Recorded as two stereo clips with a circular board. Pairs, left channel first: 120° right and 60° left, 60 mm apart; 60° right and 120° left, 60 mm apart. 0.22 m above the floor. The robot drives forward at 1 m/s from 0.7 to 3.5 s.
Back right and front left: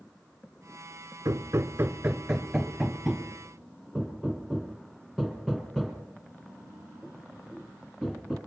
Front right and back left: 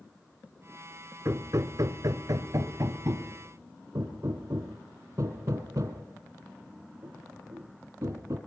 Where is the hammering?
80° left, 0.9 m; by 8.4 s 160° left, 2.5 m.